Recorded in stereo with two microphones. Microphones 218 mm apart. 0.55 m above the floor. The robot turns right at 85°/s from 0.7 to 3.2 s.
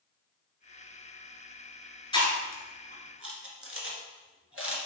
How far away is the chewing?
About 1.6 m.